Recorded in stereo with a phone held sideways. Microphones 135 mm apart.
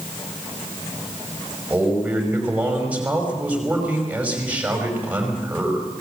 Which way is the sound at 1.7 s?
10° right (ahead or behind).